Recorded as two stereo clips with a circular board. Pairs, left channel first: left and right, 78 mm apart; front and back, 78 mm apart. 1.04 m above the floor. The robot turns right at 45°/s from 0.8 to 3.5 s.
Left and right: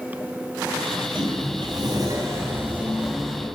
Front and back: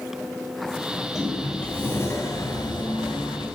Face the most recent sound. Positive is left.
turn(degrees=15)